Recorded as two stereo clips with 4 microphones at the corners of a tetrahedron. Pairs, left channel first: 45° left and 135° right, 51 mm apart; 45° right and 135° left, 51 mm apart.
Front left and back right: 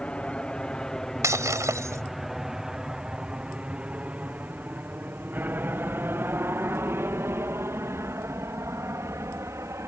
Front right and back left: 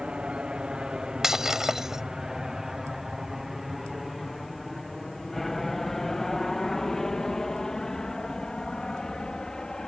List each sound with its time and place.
0.0 s an aircraft: 85° left; by 9.9 s 120° right
1.2 s breaking glass: 145° right